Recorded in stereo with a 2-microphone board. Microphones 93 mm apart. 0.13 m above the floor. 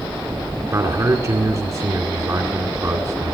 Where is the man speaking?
35° right (ahead or behind), 2 m.